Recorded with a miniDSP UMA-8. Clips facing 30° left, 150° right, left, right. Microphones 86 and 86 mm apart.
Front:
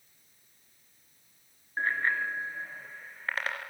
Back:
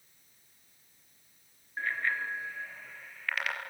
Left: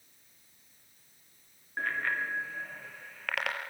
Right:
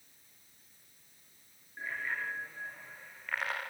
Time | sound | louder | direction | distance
1.8 | a bicycle bell | front 3 dB, left 6 dB | 85° left | 3.5 m